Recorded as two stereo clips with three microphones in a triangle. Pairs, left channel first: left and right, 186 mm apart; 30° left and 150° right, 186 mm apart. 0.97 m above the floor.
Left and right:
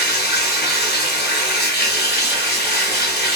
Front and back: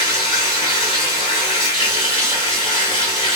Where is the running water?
90° left, 1.1 m.